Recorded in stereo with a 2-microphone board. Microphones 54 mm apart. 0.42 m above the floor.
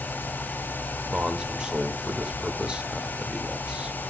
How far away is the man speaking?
About 1.1 m.